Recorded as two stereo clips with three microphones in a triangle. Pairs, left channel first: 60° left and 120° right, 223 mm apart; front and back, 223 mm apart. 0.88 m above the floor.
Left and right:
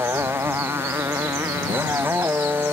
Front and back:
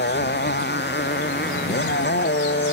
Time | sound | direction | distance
0.0 | a motorcycle | 40° right | ?